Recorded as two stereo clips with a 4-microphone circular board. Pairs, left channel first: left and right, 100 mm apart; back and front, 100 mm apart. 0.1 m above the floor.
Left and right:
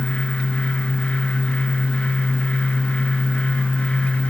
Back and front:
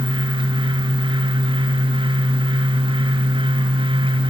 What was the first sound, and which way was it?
Only background noise.